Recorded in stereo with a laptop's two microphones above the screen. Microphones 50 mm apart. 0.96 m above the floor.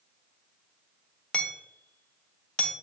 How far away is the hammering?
About 0.6 m.